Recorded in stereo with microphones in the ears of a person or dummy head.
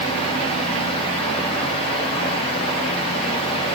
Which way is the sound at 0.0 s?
30° left (ahead or behind).